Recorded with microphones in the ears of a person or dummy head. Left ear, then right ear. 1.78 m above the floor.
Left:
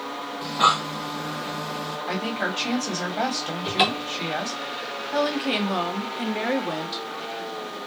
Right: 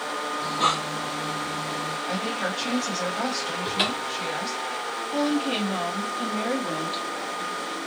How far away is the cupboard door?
About 0.6 m.